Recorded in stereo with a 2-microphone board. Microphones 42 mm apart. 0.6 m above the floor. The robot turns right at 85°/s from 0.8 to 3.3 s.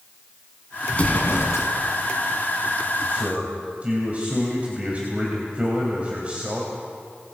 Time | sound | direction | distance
0.9 | an explosion | 25° left | 2.5 m
3.1 | a man speaking | 50° right (ahead or behind) | 3 m